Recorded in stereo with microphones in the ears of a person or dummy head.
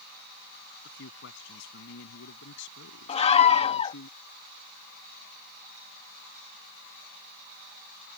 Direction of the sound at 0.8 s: 75° left (ahead or behind).